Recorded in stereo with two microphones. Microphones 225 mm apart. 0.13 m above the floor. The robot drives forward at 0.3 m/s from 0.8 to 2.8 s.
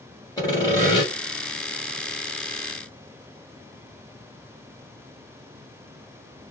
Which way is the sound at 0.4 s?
20° left (ahead or behind).